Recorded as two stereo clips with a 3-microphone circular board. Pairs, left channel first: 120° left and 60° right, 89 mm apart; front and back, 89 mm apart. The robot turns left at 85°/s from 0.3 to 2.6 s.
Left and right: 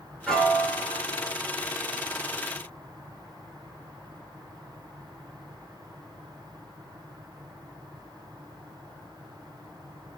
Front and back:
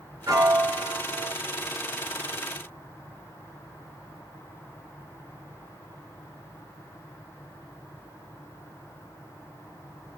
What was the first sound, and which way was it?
A piano, 155° right.